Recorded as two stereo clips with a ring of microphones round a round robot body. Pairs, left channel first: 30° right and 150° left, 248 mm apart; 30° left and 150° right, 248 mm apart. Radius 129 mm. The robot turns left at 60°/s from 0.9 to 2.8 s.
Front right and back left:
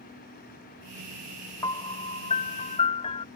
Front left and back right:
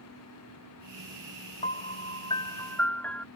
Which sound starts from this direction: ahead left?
A piano, at 1.6 s.